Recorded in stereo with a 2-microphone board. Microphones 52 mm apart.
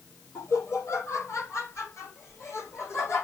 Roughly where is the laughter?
Left.